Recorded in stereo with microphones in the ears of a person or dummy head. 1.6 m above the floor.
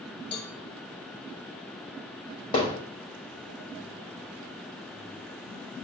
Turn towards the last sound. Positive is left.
turn(degrees=35)  # may be behind; listen again after turning